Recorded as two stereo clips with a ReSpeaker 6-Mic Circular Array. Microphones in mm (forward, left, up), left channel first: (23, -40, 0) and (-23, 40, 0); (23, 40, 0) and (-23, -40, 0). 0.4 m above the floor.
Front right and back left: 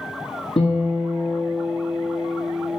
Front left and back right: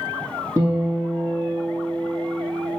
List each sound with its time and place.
0.6 s a guitar: 65° right, 2.5 m